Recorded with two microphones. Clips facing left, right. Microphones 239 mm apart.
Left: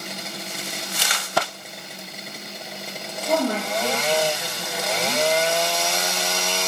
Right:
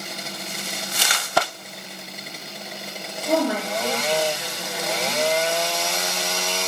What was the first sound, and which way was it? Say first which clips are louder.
A woman speaking: right 1 dB; 10° right (ahead or behind).